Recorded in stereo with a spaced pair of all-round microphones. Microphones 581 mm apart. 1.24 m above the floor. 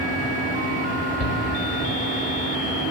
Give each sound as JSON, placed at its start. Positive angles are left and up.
{"t": 0.0, "sound": "a fan", "side_deg": 15, "distance_m": 7.5}
{"t": 1.2, "sound": "a shout", "side_deg": 90, "distance_m": 4.0}